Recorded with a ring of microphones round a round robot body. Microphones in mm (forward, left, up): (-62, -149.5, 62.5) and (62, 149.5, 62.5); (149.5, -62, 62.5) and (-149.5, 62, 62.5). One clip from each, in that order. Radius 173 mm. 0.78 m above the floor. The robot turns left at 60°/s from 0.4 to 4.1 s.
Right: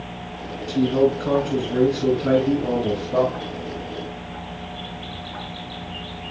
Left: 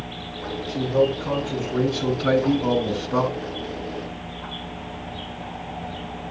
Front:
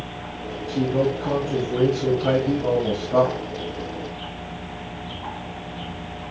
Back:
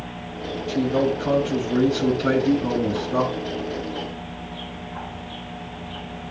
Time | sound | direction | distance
0.7 | a man speaking | 140° right | 5.5 m